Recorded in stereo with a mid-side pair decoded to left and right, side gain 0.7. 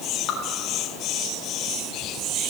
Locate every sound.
0.3 s dripping: 50° left, 2.0 m